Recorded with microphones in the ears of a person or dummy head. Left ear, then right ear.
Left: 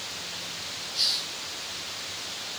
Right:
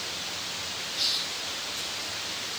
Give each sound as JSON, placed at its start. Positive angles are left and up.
{"t": 0.9, "sound": "a hiss", "side_deg": 35, "distance_m": 9.0}